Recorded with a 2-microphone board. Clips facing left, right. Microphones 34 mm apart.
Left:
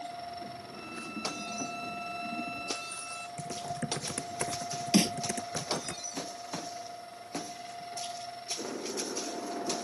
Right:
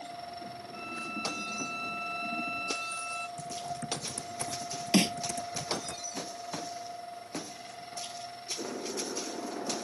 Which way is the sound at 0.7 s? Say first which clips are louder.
Right 5 dB; 25° right (ahead or behind).